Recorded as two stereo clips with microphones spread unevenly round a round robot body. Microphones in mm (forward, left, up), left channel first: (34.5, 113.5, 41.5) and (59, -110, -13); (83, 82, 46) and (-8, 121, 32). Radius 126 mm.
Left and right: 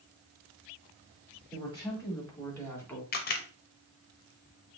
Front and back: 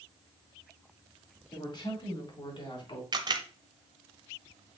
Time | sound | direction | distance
1.5 | a woman speaking | 20° left | 5 m
3.1 | a camera shutter | 150° left | 0.9 m